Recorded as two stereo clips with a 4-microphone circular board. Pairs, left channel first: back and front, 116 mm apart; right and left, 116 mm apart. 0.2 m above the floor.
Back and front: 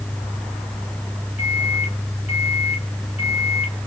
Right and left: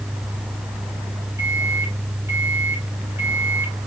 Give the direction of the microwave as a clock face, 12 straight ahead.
7 o'clock.